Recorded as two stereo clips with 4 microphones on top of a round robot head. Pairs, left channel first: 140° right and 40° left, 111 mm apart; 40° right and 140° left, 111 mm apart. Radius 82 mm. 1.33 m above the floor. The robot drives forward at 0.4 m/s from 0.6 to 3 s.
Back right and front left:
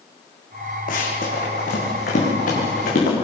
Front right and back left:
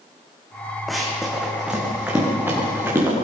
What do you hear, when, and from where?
0.9 s running footsteps: 130° right, 4 m; by 3.1 s 150° right, 7.5 m